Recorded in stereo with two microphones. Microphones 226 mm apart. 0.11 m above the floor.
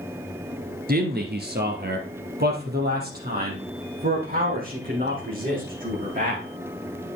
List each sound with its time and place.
0.9 s a man speaking: 45° right (ahead or behind), 1.8 m; by 6.4 s 40° right (ahead or behind), 7.5 m